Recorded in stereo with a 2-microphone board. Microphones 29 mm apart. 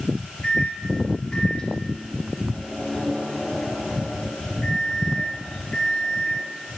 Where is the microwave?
25° left (ahead or behind), 3 m.